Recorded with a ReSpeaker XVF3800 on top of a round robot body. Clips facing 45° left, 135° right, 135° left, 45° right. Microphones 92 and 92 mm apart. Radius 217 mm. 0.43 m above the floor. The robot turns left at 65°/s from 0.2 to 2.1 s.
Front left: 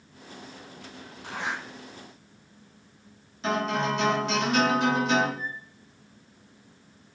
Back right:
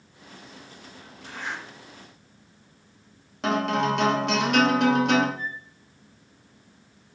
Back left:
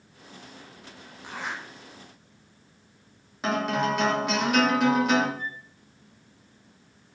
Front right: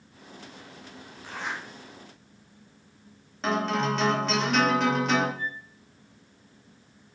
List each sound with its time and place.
1.2 s a zipper: 65° left, 1.6 m; by 1.6 s 40° left, 1.6 m
3.4 s a guitar: 145° right, 2.5 m
5.4 s a flute: 155° right, 4 m